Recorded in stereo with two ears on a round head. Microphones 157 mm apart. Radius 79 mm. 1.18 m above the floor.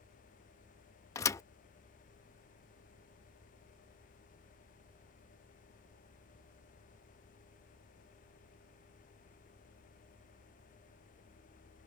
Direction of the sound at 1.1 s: 15° left (ahead or behind).